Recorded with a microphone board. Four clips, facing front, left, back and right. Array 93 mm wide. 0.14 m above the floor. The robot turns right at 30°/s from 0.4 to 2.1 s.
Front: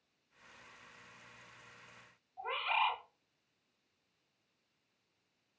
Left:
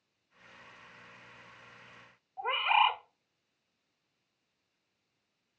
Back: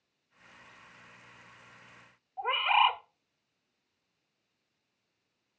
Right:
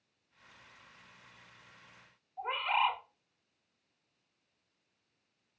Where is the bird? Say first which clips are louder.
Left 4 dB, back 9 dB; 145° left, 0.8 m.